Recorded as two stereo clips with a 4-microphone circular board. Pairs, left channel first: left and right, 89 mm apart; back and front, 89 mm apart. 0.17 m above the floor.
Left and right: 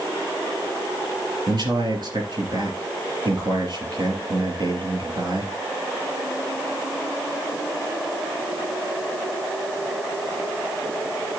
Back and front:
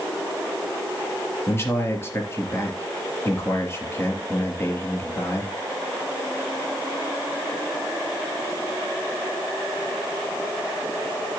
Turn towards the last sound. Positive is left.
turn(degrees=-120)